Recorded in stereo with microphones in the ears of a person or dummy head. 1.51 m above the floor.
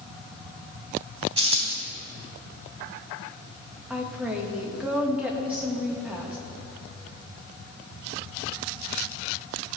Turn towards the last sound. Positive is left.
turn(degrees=-5)  # may be behind; listen again after turning